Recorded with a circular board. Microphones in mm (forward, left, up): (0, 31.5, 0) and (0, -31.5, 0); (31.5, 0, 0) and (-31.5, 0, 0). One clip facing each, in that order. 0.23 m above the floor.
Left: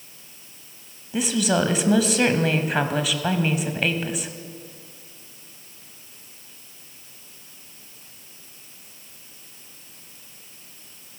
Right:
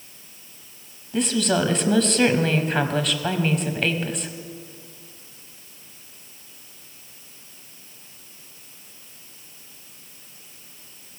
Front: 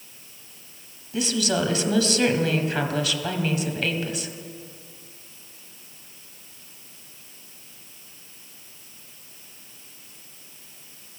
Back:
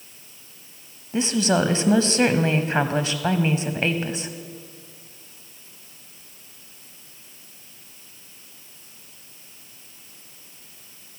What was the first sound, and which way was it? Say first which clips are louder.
A woman speaking: even, back 3 dB; 170° left.